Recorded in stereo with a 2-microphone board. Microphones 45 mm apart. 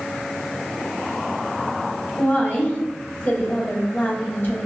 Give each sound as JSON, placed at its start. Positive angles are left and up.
{"t": 2.2, "sound": "a woman speaking", "side_deg": 45, "distance_m": 1.2}